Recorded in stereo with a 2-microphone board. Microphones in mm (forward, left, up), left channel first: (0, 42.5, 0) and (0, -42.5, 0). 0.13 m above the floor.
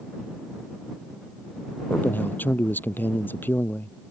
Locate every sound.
1.9 s a man speaking: 20° left (ahead or behind)